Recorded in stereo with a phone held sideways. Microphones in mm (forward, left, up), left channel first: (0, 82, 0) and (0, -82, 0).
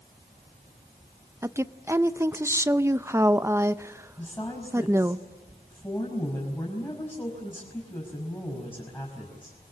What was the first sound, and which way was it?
A woman speaking, 15° right (ahead or behind).